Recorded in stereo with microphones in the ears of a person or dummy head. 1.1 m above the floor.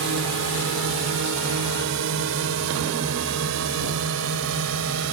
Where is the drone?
70° right (ahead or behind); by 5.1 s 80° right.